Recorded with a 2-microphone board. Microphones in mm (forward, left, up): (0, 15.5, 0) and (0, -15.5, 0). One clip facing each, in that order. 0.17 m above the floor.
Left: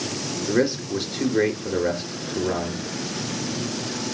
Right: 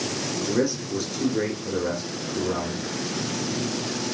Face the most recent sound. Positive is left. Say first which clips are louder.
# left 4 dB
turn(degrees=45)  # may be behind; listen again after turning